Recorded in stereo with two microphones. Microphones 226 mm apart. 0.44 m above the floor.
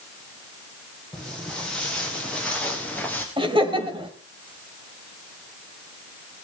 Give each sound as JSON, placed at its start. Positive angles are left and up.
{"t": 1.1, "sound": "footsteps", "side_deg": 5, "distance_m": 6.5}
{"t": 3.4, "sound": "laughter", "side_deg": -20, "distance_m": 1.8}